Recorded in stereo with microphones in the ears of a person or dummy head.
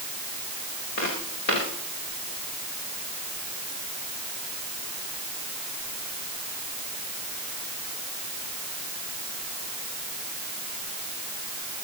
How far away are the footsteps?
About 7.5 m.